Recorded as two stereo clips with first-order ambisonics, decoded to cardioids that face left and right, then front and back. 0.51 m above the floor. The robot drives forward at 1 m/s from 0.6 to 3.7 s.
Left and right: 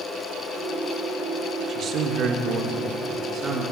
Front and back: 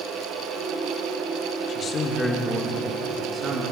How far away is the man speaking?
About 1.4 m.